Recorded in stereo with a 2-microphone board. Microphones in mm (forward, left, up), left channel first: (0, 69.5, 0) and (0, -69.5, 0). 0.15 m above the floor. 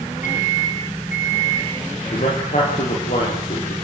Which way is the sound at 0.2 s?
70° left (ahead or behind).